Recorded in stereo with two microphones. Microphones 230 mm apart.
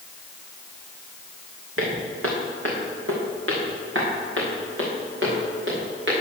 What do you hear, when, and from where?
1.8 s footsteps: 80° right, 2 m; by 6.2 s 60° right (ahead or behind), 4.5 m